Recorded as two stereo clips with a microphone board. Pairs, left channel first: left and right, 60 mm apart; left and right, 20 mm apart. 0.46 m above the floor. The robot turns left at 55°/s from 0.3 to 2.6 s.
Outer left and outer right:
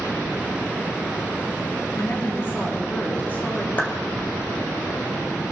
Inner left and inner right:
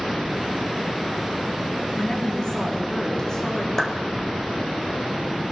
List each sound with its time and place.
1.9 s a woman speaking: 65° left, 3 m; by 3.7 s 30° left, 3 m
3.8 s a clap: 30° left (ahead or behind), 1.7 m